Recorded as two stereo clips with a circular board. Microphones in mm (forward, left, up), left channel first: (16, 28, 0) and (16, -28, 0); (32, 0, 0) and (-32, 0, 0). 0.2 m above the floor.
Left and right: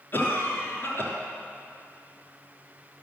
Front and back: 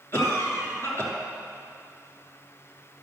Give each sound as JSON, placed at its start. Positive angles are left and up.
{"t": 0.1, "sound": "a cough", "azimuth_deg": 45, "distance_m": 3.0}